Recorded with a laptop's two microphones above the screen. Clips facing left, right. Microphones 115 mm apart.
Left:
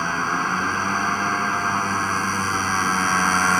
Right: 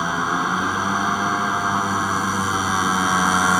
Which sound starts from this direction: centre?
A motorcycle, at 0.0 s.